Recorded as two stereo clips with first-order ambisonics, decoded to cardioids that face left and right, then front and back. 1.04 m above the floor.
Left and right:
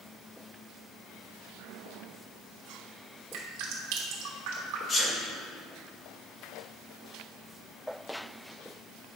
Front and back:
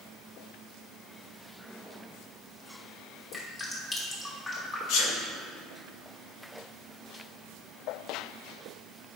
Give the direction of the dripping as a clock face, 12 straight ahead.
3 o'clock.